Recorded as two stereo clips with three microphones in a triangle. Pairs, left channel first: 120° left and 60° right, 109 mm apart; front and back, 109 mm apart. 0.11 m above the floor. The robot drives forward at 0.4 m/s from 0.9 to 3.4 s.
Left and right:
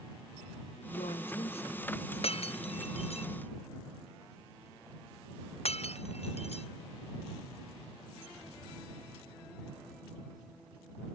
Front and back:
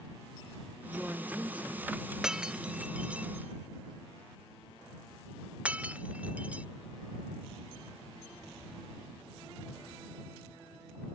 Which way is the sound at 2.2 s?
95° left.